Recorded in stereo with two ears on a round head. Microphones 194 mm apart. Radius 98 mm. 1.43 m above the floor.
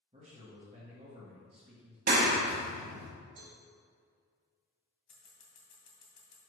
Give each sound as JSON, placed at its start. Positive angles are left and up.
{"t": 0.1, "sound": "a man speaking", "side_deg": -30, "distance_m": 1.8}
{"t": 2.1, "sound": "a clap", "side_deg": -45, "distance_m": 1.3}
{"t": 3.4, "sound": "a cowbell", "side_deg": -60, "distance_m": 3.0}
{"t": 5.1, "sound": "scissors", "side_deg": 35, "distance_m": 2.5}